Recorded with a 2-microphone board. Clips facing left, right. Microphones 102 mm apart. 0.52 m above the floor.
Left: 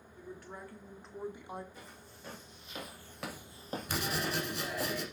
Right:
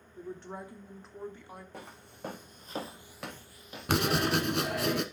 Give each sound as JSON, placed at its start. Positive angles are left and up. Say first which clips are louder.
{"t": 0.2, "sound": "a woman speaking", "louder": "right 6 dB", "side_deg": -40, "distance_m": 1.2}
{"t": 1.7, "sound": "footsteps", "louder": "right 5 dB", "side_deg": -65, "distance_m": 2.5}
{"t": 3.9, "sound": "writing", "louder": "right 9 dB", "side_deg": -70, "distance_m": 1.1}